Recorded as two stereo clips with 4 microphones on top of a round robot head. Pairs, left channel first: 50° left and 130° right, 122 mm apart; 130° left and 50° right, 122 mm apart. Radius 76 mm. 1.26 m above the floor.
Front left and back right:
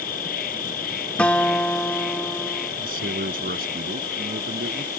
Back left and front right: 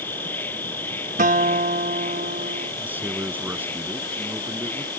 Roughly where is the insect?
Ahead left.